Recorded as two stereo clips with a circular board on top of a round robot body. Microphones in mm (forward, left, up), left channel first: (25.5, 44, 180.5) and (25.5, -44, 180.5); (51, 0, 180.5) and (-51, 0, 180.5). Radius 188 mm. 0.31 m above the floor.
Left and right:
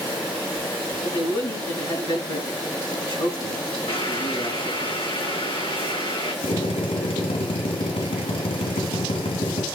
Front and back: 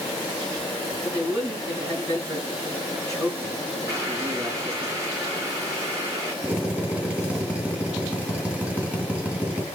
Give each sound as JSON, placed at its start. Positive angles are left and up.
{"t": 1.0, "sound": "a man speaking", "azimuth_deg": 120, "distance_m": 7.0}
{"t": 3.9, "sound": "boiling", "azimuth_deg": 125, "distance_m": 6.5}
{"t": 6.4, "sound": "a drill", "azimuth_deg": 105, "distance_m": 3.0}